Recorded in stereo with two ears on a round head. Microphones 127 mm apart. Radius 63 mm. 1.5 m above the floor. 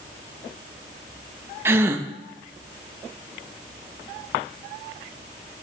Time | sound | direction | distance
1.6 | a gasp | 15° right (ahead or behind) | 0.7 m